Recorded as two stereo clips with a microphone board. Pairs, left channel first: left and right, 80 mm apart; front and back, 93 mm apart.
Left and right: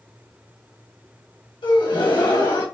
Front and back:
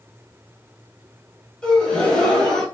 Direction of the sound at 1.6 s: 80° left.